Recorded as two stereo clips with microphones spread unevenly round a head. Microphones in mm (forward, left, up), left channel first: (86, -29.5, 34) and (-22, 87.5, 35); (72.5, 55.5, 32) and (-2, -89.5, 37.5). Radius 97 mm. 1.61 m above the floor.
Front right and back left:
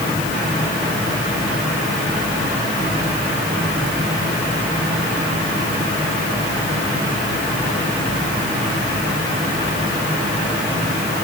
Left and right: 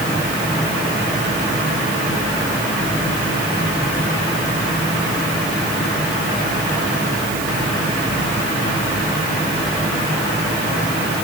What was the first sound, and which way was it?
Only background noise.